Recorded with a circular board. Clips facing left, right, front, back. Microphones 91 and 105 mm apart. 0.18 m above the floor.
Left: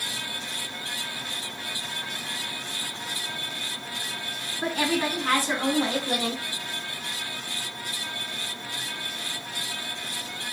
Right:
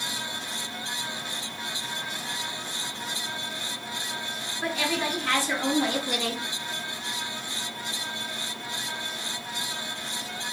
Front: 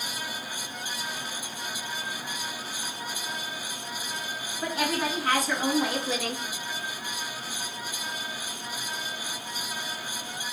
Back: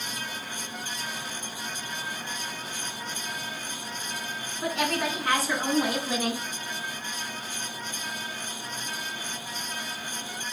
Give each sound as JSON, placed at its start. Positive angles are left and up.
{"t": 4.6, "sound": "a woman speaking", "azimuth_deg": 80, "distance_m": 2.0}